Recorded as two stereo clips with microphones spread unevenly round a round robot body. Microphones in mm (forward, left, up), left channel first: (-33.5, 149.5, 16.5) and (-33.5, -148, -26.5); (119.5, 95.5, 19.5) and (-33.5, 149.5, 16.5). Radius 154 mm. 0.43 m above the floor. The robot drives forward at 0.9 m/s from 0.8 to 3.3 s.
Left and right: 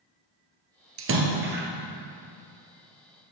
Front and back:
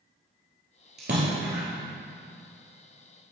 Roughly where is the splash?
Behind right.